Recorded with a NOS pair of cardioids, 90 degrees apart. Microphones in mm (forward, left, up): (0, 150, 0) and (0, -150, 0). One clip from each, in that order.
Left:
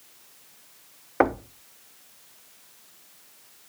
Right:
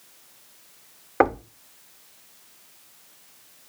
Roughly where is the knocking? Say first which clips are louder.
Right 2 dB; ahead.